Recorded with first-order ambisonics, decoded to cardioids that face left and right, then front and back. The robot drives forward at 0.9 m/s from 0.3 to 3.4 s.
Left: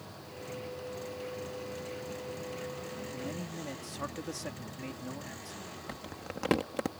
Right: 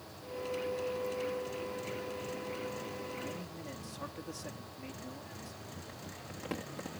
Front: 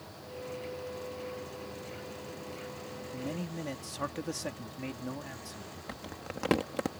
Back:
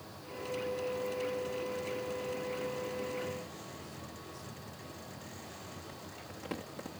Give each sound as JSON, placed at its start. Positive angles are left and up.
{"t": 3.1, "sound": "a man speaking", "azimuth_deg": 20}
{"t": 5.9, "sound": "crumpling", "azimuth_deg": 40}